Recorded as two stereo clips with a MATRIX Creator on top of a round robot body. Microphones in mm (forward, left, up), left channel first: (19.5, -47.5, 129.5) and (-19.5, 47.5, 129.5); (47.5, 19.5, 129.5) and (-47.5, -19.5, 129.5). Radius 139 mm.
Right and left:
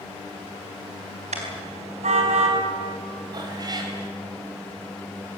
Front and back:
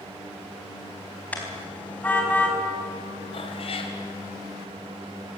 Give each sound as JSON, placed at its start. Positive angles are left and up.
{"t": 1.3, "sound": "a car horn", "azimuth_deg": 100, "distance_m": 4.0}
{"t": 3.3, "sound": "a cat meowing", "azimuth_deg": 60, "distance_m": 3.5}